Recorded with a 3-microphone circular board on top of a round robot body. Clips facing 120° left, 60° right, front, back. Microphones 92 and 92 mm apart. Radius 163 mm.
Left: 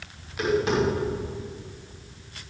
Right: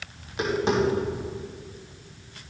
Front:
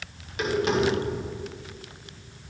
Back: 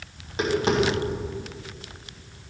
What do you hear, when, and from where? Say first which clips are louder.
0.2 s tapping: left 2 dB, back 2 dB; 120° right, 3.5 m